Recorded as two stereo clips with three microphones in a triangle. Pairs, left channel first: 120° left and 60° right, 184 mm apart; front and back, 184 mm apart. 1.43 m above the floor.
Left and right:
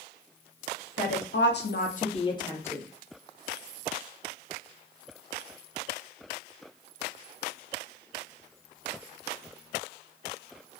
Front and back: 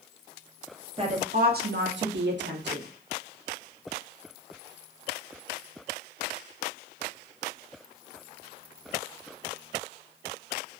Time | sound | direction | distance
1.0 | a woman speaking | 120° left | 0.7 m